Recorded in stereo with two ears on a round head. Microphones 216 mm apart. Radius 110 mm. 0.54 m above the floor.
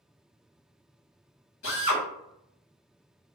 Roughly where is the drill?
Left.